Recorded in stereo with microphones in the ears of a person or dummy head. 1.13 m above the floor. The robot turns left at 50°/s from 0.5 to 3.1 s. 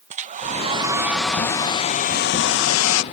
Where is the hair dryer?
145° right; by 3.0 s 85° left.